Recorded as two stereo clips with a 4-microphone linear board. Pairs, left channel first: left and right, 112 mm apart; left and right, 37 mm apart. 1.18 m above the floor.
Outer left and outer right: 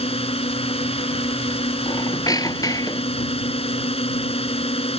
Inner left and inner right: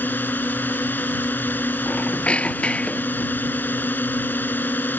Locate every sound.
0.0 s a drone: 65° left (ahead or behind)
1.9 s a squeak: 35° left (ahead or behind)